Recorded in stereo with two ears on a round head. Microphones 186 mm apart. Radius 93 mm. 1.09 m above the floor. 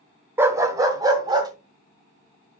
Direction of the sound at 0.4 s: 10° right (ahead or behind).